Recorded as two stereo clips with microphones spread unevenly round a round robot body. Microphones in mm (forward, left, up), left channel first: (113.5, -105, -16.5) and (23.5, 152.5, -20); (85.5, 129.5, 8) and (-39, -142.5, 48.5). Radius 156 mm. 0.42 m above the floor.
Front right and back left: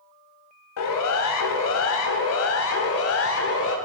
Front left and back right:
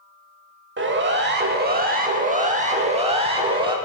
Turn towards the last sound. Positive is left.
turn(degrees=-40)